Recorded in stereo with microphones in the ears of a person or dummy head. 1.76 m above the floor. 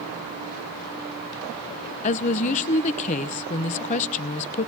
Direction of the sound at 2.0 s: 35° left (ahead or behind).